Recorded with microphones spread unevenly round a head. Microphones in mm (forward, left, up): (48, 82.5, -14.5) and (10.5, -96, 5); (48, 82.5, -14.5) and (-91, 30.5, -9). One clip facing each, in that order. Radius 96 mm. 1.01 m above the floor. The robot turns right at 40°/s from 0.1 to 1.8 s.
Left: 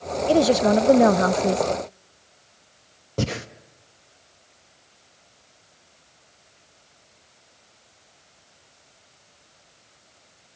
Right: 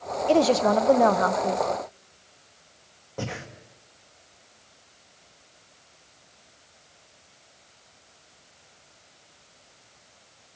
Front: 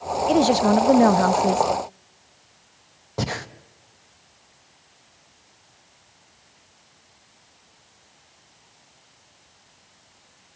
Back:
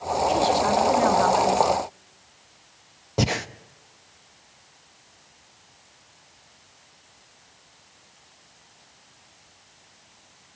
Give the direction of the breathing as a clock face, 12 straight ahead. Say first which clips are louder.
Left 7 dB, back 3 dB; 8 o'clock.